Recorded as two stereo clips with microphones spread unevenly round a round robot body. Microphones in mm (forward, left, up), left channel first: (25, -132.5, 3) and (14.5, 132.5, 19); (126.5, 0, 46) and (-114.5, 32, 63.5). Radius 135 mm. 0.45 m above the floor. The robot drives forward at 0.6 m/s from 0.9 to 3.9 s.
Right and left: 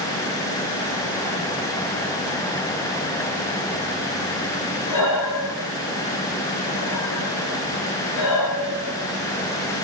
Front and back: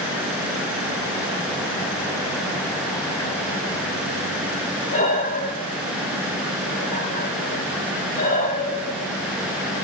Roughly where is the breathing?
Right.